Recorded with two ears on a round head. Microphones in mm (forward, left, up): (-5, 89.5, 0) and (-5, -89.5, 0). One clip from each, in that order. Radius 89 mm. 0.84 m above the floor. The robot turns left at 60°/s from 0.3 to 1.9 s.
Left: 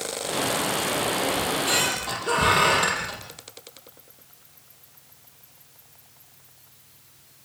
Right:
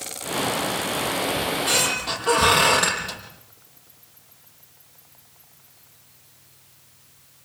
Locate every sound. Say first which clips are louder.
1.4 s a squeak: right 1 dB; 15° left, 6.5 m; by 3.2 s 15° right, 6.5 m